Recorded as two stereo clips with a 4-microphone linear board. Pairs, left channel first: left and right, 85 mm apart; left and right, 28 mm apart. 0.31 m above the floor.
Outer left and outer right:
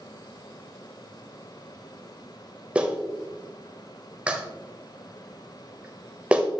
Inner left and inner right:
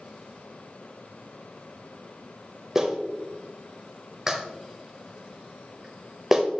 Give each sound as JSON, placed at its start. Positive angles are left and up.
{"t": 2.8, "sound": "a clap", "side_deg": -15, "distance_m": 0.9}